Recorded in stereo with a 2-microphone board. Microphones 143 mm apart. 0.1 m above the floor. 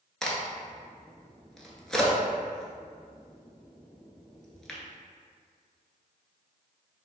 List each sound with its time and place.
0.2 s a crack: 5° left (ahead or behind), 0.6 m